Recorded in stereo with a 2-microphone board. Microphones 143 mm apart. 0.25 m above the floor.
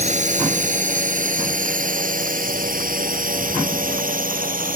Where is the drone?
55° right (ahead or behind); by 4.8 s 75° right (ahead or behind).